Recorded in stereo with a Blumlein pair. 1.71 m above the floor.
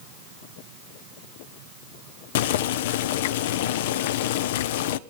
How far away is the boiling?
About 0.6 m.